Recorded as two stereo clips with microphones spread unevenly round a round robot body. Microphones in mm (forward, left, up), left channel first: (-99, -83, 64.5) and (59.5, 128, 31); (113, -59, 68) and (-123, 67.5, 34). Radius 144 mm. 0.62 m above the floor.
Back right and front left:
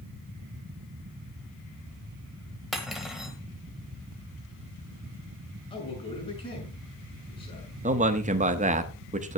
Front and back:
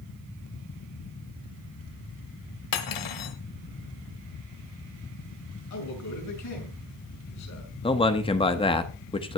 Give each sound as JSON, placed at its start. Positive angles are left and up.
{"t": 2.7, "sound": "cutlery clinking", "azimuth_deg": -35, "distance_m": 1.5}
{"t": 5.7, "sound": "a man speaking", "azimuth_deg": -55, "distance_m": 6.5}
{"t": 7.8, "sound": "a man speaking", "azimuth_deg": 40, "distance_m": 1.0}